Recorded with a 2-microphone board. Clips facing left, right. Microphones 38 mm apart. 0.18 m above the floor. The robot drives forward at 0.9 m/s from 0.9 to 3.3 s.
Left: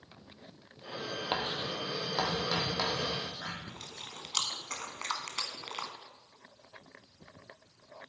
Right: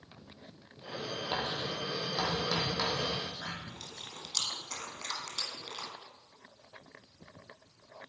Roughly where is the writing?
Left.